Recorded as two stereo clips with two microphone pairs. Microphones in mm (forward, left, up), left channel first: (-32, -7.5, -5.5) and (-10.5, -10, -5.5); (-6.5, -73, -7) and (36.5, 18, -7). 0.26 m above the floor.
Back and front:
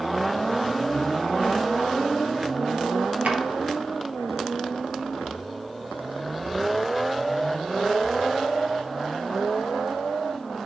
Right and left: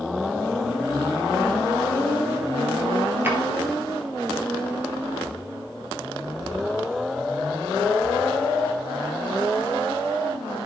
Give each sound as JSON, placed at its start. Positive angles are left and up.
{"t": 3.2, "sound": "a drawer", "azimuth_deg": -5, "distance_m": 1.6}